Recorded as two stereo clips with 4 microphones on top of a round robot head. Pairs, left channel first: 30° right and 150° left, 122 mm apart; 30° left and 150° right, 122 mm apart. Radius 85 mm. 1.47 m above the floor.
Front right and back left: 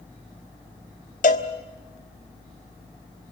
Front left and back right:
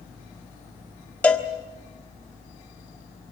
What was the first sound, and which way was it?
A cowbell, 45° right.